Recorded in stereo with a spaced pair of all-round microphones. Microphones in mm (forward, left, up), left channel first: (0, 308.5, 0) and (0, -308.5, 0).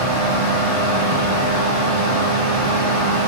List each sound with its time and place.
0.0 s a fan: 55° right (ahead or behind), 0.8 m